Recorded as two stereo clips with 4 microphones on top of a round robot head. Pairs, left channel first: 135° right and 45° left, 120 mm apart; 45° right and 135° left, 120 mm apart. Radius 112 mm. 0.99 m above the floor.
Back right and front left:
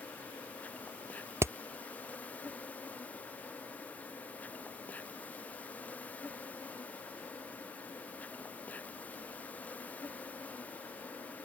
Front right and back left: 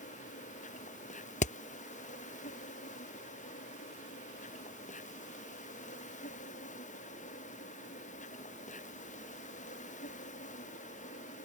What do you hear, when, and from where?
0.0 s an insect: 55° right
1.4 s hammering: 25° right